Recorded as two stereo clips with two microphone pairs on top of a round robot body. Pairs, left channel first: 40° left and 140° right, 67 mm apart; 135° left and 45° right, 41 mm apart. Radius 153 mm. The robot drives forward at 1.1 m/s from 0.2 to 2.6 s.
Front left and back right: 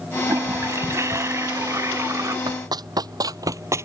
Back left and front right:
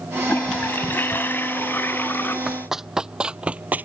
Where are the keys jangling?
No keys jangling in this recording.